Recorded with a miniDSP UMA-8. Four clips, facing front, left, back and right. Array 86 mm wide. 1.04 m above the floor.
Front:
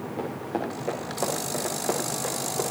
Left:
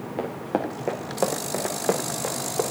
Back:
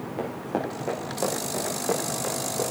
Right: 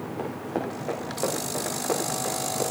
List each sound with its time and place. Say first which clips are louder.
0.2 s running footsteps: left 4 dB, back 1 dB; 105° left, 5 m; by 2.6 s 85° left, 7.5 m